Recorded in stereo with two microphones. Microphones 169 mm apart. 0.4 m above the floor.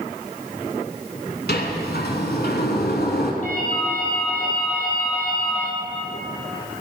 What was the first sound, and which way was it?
A sliding door, 80° left.